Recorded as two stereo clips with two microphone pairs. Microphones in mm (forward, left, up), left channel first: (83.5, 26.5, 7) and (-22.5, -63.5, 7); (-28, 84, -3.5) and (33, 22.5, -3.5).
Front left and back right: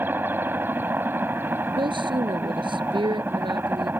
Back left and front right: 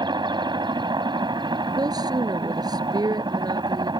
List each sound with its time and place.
0.0 s a helicopter: 65° right
1.8 s a woman speaking: 85° right